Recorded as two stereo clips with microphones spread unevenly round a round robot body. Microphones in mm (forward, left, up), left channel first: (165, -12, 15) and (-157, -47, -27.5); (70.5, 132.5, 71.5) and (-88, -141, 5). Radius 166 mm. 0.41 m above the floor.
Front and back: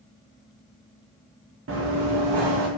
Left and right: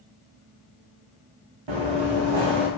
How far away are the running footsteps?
About 1.6 m.